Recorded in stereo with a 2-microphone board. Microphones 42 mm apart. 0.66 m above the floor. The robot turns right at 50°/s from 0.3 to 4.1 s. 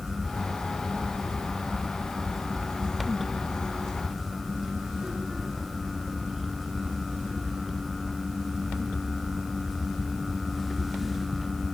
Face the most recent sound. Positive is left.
No sound to turn to.